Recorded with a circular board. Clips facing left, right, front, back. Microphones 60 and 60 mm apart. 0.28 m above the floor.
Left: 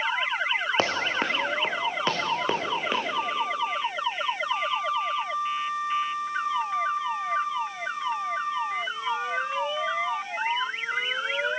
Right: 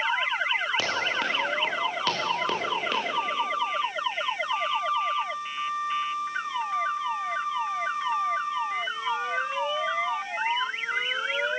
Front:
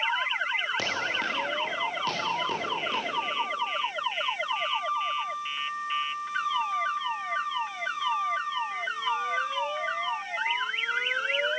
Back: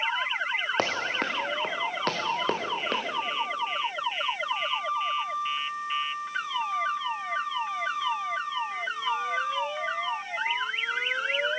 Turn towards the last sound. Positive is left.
turn(degrees=165)